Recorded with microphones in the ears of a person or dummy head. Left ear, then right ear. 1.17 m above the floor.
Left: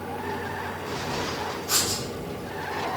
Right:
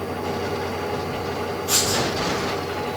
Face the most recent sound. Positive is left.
turn(degrees=-55)  # may be behind; listen again after turning